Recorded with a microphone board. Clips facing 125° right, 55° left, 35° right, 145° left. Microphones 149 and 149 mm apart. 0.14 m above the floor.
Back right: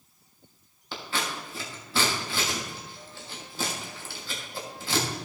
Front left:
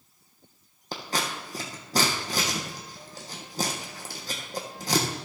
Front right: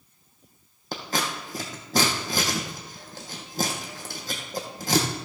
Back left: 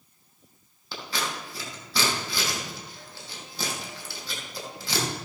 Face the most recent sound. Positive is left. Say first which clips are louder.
# front left 2 dB, front right 3 dB
turn(degrees=10)